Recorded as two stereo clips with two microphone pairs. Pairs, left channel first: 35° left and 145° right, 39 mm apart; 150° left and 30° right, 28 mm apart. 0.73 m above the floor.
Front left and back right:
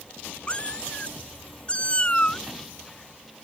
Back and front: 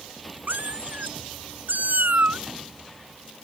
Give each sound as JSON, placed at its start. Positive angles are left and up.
{"t": 0.5, "sound": "a cat meowing", "azimuth_deg": -25}